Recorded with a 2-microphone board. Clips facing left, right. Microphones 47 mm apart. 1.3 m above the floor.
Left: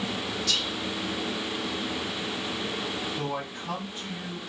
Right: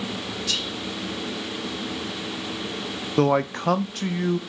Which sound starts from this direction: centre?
Whispering, at 0.5 s.